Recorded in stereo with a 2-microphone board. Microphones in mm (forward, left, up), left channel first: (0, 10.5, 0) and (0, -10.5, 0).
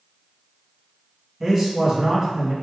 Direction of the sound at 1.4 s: 20° right (ahead or behind).